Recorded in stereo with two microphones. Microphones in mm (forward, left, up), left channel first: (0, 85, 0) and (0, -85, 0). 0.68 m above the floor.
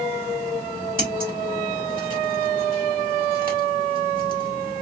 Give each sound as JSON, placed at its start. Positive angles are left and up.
{"t": 1.0, "sound": "scissors", "side_deg": -55, "distance_m": 1.8}